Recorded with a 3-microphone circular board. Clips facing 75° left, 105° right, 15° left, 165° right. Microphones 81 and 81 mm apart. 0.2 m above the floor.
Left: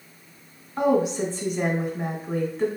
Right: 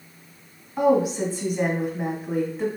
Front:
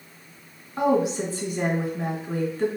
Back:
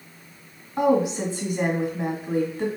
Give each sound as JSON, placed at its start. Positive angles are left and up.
{"t": 0.8, "sound": "a woman speaking", "azimuth_deg": -165, "distance_m": 1.4}